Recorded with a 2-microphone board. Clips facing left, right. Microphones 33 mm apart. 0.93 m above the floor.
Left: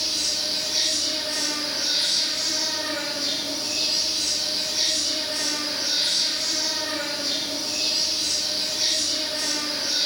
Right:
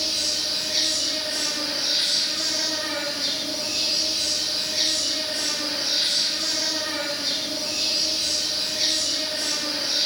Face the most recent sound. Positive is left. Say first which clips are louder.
# right 1 dB
turn(degrees=-50)  # may be behind; listen again after turning